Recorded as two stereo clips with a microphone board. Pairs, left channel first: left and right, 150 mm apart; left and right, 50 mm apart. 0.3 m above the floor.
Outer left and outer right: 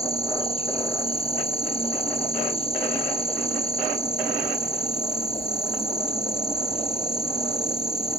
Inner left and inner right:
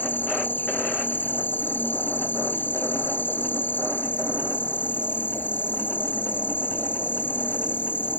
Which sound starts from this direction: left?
An insect, at 0.0 s.